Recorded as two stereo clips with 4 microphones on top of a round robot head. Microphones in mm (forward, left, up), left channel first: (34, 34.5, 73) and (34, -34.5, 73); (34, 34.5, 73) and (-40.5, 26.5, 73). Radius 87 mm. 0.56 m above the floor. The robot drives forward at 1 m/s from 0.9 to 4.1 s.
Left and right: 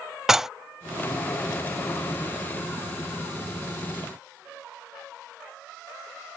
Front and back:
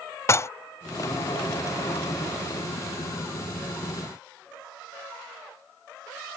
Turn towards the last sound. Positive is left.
turn(degrees=180)